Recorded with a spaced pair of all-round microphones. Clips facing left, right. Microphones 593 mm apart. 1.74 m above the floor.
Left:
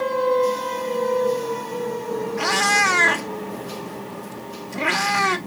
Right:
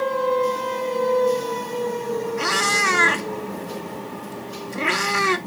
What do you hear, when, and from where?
2.4 s a cat meowing: 15° left (ahead or behind), 1.0 m